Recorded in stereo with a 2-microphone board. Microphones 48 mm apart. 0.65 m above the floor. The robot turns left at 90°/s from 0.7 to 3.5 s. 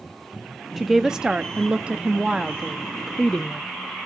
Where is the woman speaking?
Centre (ahead or behind), 0.5 m; by 3.6 s 25° left (ahead or behind), 0.5 m.